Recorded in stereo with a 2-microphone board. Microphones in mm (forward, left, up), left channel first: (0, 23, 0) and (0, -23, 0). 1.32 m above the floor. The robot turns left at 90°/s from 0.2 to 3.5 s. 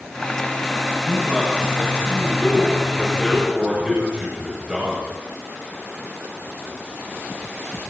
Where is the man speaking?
160° right, 8 m; by 5.1 s 20° right, 8 m.